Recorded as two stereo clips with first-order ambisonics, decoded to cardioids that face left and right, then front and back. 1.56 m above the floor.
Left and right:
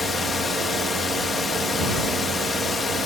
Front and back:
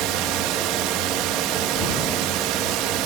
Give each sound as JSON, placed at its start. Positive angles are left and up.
{"t": 0.0, "sound": "a drone", "azimuth_deg": 160}